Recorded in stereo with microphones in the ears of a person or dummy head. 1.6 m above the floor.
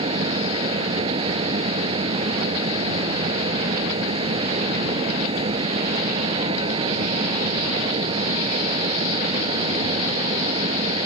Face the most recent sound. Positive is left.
turn(degrees=-25)  # may be behind; listen again after turning